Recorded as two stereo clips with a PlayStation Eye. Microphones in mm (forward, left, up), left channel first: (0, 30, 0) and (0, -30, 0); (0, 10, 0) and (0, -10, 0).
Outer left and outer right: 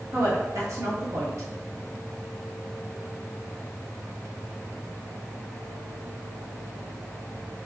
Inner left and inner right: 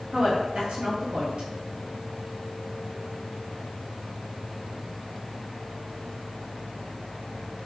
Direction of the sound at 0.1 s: 60° right (ahead or behind).